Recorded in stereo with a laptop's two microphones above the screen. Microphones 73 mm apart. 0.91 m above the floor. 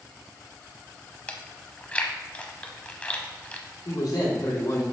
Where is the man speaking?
75° left (ahead or behind), 2.5 m.